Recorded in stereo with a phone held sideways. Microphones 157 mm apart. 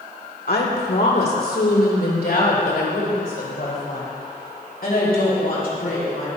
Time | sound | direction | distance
0.5 | a woman speaking | 85° left | 2 m